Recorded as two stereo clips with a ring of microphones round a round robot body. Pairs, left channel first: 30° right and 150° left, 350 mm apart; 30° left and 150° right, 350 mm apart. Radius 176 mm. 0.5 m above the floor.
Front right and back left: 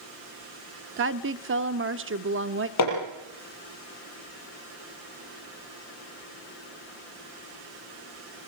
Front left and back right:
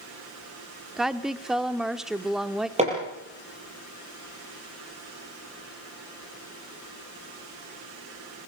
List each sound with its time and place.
1.0 s a woman speaking: 120° left, 0.8 m
2.8 s hammering: 75° right, 7 m